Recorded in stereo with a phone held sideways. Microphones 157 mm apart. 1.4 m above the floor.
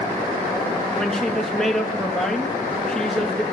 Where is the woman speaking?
5° left (ahead or behind), 1.6 m.